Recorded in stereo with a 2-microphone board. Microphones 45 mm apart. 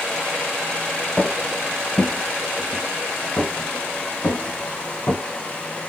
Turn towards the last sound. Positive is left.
turn(degrees=55)  # may be behind; listen again after turning